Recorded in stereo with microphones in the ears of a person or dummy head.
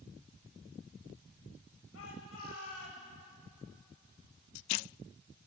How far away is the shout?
About 8.5 m.